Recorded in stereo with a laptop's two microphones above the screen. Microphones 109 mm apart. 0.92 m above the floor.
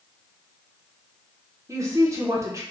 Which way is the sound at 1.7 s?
30° right (ahead or behind).